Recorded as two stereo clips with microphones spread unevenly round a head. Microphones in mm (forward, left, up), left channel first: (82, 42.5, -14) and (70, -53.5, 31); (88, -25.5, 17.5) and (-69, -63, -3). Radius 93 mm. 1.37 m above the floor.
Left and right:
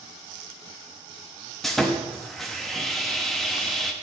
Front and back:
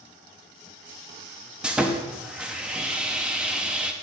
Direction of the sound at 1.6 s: 70° right.